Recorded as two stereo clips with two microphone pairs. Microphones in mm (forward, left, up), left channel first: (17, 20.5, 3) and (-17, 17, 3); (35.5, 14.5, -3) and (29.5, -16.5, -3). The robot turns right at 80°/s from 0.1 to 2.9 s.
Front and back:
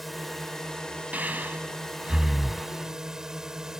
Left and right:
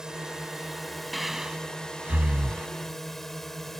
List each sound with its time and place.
0.0 s a drone: 80° right; by 3.8 s 145° left
1.1 s breathing: 170° left; by 2.7 s 70° right